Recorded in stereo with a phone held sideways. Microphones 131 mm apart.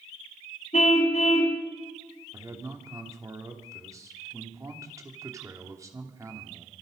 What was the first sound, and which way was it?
A car horn, 60° left (ahead or behind).